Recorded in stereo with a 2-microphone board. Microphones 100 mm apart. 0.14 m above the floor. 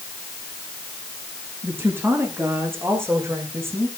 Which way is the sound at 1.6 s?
20° right (ahead or behind).